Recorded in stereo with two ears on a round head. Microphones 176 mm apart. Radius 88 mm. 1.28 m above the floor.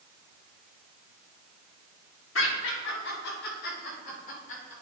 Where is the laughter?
75° left (ahead or behind), 2.5 m; by 4.7 s 40° left (ahead or behind), 4 m.